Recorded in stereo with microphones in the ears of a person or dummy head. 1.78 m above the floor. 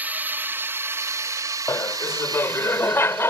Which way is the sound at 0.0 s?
10° right (ahead or behind).